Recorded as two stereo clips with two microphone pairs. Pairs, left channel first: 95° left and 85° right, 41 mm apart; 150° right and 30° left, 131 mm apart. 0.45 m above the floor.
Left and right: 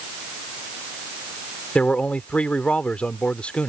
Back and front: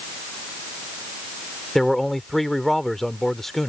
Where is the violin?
I don't hear a violin.